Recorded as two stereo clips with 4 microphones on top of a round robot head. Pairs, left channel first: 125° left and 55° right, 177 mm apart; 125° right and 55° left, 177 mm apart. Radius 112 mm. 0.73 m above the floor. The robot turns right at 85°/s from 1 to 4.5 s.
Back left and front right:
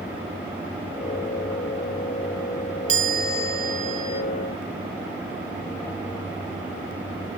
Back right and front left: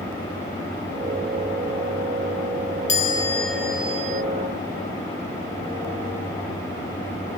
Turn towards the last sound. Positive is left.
turn(degrees=50)